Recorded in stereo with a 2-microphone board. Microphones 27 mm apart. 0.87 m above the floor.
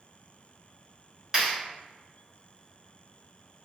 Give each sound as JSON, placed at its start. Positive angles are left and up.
{"t": 1.3, "sound": "a clap", "side_deg": -15, "distance_m": 1.5}